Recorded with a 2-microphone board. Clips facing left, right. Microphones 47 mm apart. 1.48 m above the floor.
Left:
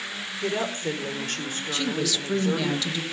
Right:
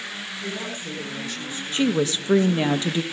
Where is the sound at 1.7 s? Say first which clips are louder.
Right 6 dB; 30° right (ahead or behind), 1.4 m.